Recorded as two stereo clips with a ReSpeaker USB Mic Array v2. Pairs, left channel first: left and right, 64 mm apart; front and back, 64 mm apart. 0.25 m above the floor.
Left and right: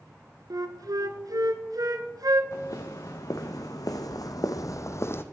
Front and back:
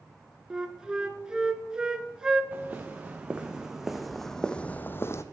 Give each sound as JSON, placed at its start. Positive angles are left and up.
{"t": 0.5, "sound": "a flute", "azimuth_deg": -100, "distance_m": 0.7}
{"t": 2.5, "sound": "footsteps", "azimuth_deg": 115, "distance_m": 1.5}